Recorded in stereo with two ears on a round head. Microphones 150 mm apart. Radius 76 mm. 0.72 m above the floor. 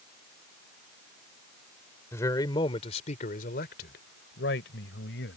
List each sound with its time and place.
2.1 s a man speaking: 15° left (ahead or behind); by 5.4 s 80° left